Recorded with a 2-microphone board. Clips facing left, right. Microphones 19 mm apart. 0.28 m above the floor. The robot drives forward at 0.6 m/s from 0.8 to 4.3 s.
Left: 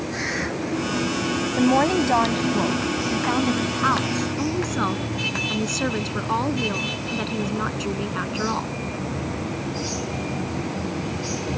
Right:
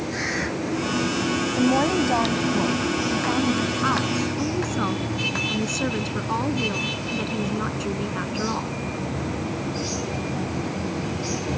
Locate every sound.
1.6 s a woman speaking: 25° left (ahead or behind); by 8.7 s 15° left (ahead or behind)